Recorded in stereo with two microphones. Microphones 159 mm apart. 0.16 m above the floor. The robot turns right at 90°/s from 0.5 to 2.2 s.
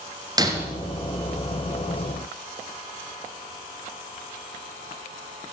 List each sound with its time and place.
0.4 s breaking glass: 25° right (ahead or behind), 1.3 m; by 0.7 s 10° right (ahead or behind), 1.3 m